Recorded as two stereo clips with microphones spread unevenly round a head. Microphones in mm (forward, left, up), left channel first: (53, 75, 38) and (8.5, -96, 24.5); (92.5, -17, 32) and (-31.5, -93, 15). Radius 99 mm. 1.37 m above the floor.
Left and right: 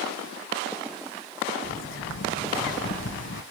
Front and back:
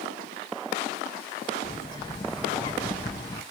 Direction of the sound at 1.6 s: 105° left.